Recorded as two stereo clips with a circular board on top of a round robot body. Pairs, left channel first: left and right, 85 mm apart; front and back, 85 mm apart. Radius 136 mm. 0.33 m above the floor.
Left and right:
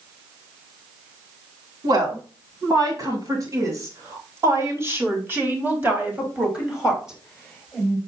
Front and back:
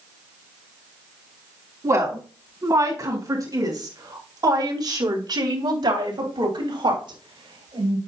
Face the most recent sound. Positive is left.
turn(degrees=180)